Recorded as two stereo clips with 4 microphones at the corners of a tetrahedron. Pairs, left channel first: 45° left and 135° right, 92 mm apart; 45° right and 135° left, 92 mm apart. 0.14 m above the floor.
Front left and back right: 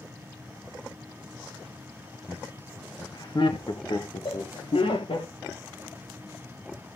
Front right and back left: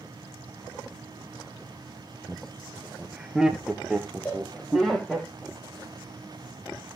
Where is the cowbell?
25° left, 8.5 m.